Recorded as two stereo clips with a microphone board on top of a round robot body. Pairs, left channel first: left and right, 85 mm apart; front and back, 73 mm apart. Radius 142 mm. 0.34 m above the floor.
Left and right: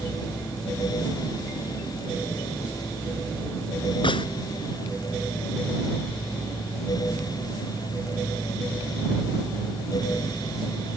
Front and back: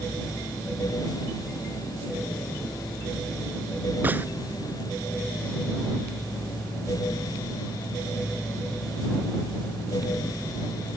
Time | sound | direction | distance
4.0 | a gunshot | 115° left | ?